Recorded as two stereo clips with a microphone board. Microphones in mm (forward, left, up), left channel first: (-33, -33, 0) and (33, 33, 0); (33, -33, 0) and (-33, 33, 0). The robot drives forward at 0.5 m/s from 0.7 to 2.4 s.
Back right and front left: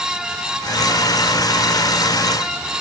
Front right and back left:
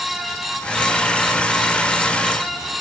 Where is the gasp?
No gasp in this recording.